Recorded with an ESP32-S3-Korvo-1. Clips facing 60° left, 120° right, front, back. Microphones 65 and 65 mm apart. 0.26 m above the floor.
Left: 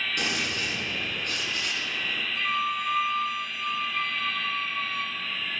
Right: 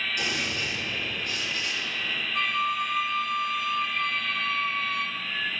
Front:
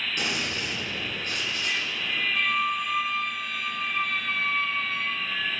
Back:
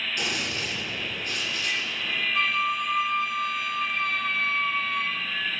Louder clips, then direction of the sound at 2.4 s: Right 2 dB, back 1 dB; 90° right.